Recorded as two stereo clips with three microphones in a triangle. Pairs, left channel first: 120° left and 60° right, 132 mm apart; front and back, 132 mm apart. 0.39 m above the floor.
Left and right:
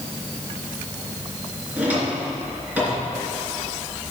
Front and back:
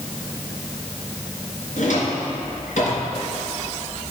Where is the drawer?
15° left, 3 m.